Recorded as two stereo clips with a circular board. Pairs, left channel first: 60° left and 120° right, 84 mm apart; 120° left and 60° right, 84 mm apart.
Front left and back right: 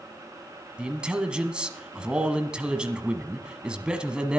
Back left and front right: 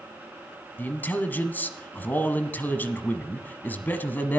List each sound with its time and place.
0.8 s a man speaking: 170° left, 1.2 m